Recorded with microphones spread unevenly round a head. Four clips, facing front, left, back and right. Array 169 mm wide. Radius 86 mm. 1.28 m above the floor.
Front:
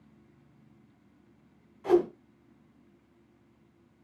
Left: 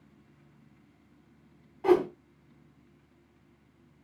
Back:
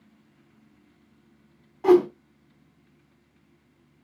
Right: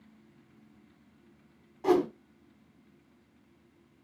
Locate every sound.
1.8 s a whoosh: straight behind, 3 m